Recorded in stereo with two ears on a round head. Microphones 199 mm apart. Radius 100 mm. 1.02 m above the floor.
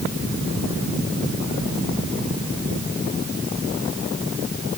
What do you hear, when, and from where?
Only background noise.